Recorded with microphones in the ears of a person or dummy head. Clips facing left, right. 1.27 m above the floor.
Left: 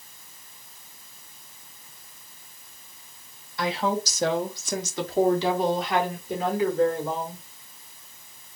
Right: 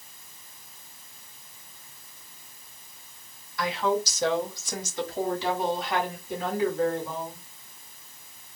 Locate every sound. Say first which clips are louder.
3.6 s a woman speaking: even; 25° left (ahead or behind), 0.7 m; by 7.4 s 75° left (ahead or behind), 2.5 m